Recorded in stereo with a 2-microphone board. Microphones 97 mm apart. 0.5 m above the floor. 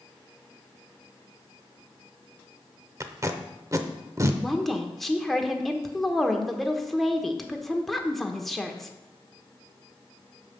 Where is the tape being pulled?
35° right (ahead or behind), 0.7 m.